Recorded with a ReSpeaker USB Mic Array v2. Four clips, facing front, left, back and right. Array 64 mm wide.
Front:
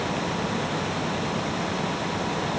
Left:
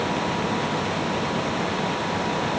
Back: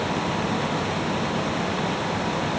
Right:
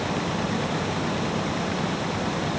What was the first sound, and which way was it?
Only background noise.